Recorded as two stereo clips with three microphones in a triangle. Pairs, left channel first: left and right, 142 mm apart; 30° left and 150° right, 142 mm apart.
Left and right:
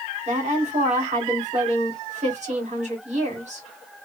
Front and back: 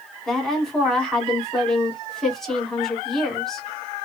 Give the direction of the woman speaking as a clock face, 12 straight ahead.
2 o'clock.